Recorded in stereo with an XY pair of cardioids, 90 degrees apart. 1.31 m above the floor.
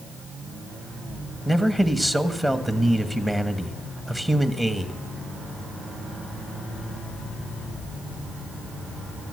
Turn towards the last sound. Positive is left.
turn(degrees=-15)